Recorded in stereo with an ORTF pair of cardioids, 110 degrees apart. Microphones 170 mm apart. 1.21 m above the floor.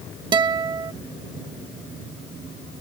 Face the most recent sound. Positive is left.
turn(degrees=-25)